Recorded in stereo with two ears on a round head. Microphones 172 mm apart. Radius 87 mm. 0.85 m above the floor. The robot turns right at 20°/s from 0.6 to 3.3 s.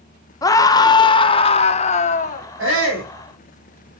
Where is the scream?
25° left, 0.6 m; by 2.5 s 60° left, 0.6 m.